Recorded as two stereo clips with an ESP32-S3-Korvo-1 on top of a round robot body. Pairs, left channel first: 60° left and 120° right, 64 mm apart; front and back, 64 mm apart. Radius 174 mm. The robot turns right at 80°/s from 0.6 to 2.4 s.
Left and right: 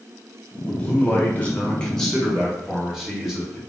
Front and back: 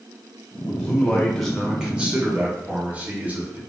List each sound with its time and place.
0.7 s a man speaking: 25° left, 1.2 m; by 3.6 s 160° left, 1.2 m